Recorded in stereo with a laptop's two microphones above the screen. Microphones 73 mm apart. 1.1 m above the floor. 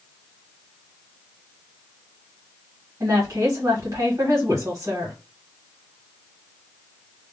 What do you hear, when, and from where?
3.0 s a woman speaking: 45° right (ahead or behind), 1.2 m